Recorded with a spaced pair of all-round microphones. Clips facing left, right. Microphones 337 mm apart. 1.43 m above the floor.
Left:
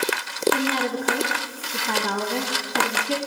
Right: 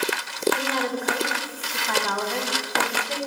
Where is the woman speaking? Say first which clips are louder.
Left 3 dB; 40° left (ahead or behind), 0.6 m.